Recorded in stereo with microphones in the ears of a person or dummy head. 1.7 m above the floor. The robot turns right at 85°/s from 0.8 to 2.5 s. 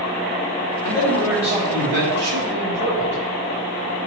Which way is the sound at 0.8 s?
150° left.